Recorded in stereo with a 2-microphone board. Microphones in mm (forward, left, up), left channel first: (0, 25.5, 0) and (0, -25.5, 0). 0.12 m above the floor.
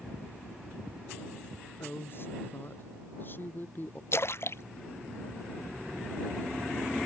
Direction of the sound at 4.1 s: 55° left (ahead or behind).